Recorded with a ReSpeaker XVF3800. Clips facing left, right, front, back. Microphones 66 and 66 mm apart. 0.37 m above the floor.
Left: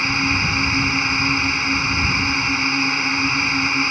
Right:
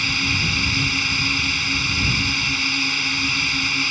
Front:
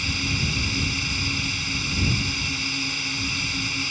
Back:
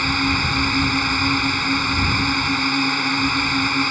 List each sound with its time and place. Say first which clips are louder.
0.0 s a drone: left 3 dB, back 8 dB; 150° left